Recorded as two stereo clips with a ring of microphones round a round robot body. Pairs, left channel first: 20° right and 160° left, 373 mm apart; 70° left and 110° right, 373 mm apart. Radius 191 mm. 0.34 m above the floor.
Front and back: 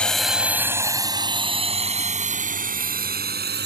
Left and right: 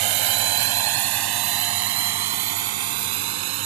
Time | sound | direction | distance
0.0 | a drone | 110° right | ?